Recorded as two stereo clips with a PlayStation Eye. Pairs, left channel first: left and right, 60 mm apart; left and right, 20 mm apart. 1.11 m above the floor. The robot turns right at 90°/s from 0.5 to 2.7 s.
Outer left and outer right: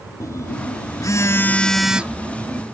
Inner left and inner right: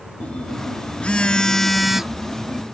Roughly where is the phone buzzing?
Ahead left.